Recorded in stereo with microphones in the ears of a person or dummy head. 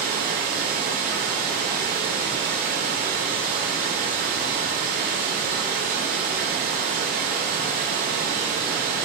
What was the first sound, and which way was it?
Running water, 50° right (ahead or behind).